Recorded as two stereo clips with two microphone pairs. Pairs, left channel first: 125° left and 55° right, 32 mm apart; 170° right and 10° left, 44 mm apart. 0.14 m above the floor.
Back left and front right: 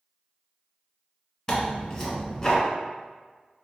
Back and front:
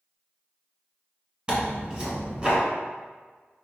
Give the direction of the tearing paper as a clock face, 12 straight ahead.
10 o'clock.